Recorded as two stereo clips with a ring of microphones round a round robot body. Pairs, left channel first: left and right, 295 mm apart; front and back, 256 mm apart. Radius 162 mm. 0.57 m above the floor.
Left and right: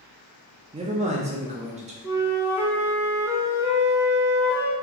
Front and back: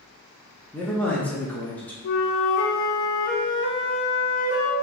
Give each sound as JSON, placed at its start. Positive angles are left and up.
{"t": 0.7, "sound": "a man speaking", "azimuth_deg": -75, "distance_m": 0.7}
{"t": 2.0, "sound": "a flute", "azimuth_deg": -5, "distance_m": 0.8}